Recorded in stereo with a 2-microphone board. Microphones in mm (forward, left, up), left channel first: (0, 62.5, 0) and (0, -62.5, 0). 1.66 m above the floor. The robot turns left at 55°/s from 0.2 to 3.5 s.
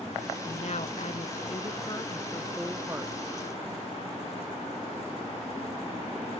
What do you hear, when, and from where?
0.5 s a woman speaking: 120° left; by 3.1 s 30° right